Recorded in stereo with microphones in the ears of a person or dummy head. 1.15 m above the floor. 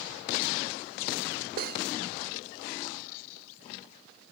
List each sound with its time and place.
1.6 s cutlery clinking: 50° right (ahead or behind), 0.6 m